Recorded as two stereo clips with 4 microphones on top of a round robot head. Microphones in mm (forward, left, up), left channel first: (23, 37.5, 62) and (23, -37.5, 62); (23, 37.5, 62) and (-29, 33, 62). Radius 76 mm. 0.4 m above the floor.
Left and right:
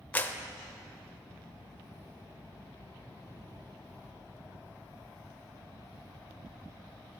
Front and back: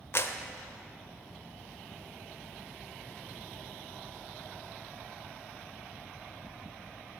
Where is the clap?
25° left, 1.1 m.